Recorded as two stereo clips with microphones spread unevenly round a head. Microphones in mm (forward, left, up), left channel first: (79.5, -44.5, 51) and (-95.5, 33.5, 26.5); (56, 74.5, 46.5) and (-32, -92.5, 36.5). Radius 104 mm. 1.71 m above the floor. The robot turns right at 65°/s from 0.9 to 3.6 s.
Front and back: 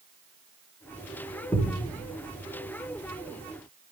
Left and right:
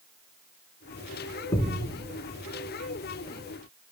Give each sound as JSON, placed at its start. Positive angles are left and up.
{"t": 1.5, "sound": "a thud", "azimuth_deg": 30, "distance_m": 1.3}